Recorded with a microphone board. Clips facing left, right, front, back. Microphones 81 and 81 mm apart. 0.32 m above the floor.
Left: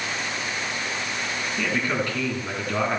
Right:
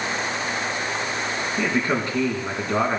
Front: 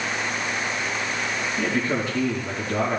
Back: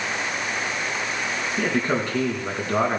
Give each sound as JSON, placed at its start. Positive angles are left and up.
{"t": 1.6, "sound": "a man speaking", "azimuth_deg": -155, "distance_m": 3.5}